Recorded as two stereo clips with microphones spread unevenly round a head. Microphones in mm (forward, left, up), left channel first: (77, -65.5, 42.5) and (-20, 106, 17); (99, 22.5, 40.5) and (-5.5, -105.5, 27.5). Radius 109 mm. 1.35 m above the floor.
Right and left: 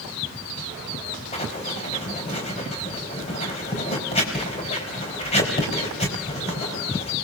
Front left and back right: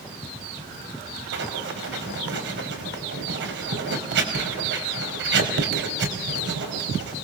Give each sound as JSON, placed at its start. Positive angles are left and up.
{"t": 1.3, "sound": "writing", "azimuth_deg": -125, "distance_m": 5.0}